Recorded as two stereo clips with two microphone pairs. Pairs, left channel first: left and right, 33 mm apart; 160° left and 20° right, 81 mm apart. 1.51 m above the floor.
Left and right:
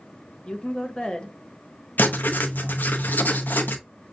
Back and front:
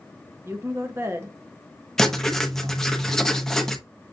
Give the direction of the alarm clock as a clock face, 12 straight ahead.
I don't hear an alarm clock.